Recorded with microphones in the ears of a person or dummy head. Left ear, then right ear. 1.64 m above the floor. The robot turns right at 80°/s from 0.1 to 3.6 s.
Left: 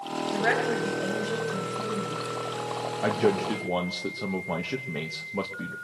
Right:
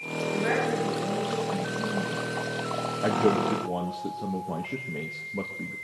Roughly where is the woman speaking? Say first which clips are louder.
Left 2 dB; ahead left.